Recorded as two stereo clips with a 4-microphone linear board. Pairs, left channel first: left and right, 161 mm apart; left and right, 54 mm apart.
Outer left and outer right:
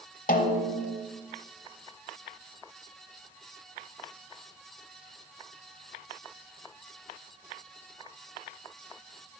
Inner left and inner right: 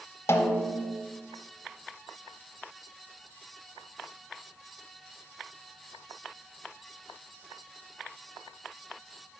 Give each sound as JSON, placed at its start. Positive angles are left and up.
{"t": 0.3, "sound": "a snare drum", "side_deg": 65, "distance_m": 0.7}